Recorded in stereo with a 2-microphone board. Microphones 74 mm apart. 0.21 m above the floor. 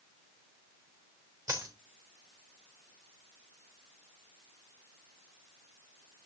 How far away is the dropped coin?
About 3.5 m.